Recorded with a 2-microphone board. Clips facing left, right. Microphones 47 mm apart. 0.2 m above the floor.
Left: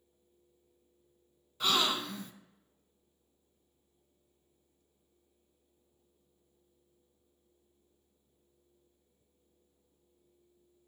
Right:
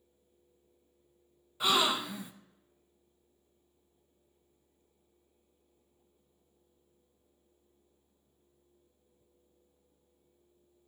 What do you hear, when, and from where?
1.6 s a gasp: 15° right (ahead or behind), 0.6 m